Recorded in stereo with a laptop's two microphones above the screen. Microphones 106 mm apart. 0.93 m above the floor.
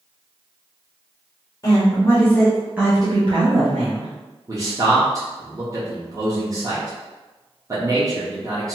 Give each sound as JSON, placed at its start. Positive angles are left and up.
{"t": 1.6, "sound": "a woman speaking", "side_deg": 35, "distance_m": 1.0}
{"t": 4.5, "sound": "a man speaking", "side_deg": -35, "distance_m": 0.8}